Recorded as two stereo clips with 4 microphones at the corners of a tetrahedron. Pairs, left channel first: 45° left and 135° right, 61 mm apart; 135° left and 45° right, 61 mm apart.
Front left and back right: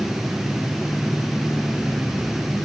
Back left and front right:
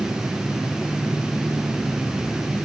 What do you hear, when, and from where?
Only background noise.